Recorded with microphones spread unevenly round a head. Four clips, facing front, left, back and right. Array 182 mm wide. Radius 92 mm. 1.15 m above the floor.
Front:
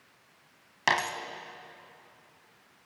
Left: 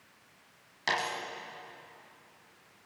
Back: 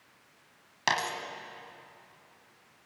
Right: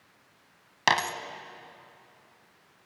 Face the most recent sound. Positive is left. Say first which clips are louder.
# right 6 dB, front 2 dB
turn(degrees=-75)